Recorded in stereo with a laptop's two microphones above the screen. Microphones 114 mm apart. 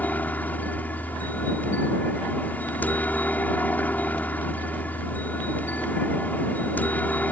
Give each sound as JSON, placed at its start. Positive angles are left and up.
{"t": 0.0, "sound": "a helicopter", "side_deg": 15}